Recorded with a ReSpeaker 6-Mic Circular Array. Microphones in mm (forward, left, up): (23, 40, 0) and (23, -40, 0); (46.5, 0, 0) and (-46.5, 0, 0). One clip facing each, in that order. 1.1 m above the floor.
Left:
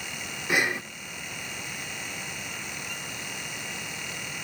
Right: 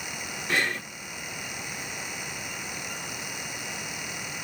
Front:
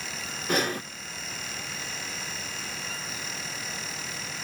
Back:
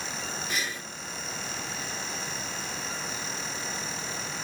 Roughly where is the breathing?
Ahead.